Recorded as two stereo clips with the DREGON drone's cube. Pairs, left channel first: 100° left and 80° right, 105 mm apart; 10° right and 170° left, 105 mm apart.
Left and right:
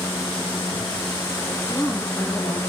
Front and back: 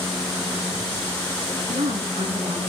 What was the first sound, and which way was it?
A woman speaking, 155° left.